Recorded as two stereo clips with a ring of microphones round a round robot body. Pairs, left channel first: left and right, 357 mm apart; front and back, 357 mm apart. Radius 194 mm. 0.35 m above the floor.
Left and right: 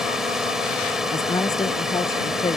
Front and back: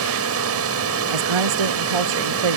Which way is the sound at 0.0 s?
Straight behind.